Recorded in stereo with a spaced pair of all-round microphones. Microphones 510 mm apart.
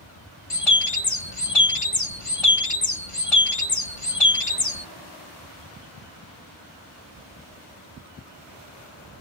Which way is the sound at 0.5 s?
80° left.